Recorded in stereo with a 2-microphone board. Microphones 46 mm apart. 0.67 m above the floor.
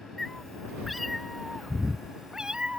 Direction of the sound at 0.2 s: 5° left (ahead or behind).